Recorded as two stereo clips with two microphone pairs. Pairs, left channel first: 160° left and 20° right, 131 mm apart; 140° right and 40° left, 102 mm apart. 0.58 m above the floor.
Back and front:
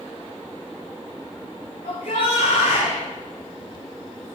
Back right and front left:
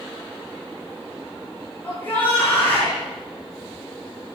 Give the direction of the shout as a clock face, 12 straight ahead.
7 o'clock.